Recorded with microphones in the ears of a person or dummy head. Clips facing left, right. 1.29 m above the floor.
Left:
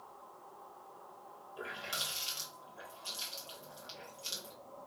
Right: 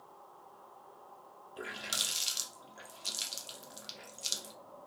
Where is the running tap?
25° right (ahead or behind), 1.9 m.